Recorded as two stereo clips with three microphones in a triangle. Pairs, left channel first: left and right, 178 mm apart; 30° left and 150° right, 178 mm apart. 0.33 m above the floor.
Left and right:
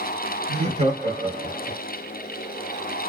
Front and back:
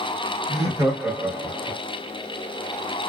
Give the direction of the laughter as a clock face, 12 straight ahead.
4 o'clock.